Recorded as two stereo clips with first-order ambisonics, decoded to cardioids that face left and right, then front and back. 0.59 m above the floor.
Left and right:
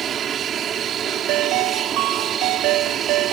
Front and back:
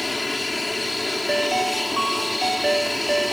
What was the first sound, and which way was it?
An aircraft, 75° right.